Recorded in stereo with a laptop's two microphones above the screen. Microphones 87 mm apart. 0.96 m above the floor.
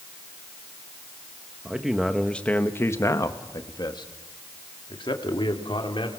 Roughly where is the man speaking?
Centre.